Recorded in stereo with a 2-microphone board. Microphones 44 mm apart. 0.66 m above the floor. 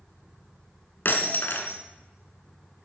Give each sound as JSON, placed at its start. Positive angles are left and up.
{"t": 1.1, "sound": "breaking glass", "side_deg": 55, "distance_m": 1.9}